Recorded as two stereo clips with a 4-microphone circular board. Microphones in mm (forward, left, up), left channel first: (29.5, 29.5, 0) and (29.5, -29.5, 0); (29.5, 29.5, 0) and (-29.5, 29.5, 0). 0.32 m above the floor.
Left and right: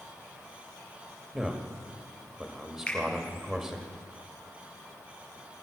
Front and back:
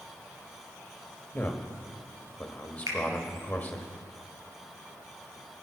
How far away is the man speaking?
About 1.3 m.